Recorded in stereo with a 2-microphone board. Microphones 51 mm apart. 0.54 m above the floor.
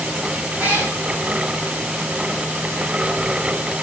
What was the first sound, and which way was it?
A cat meowing, 35° right (ahead or behind).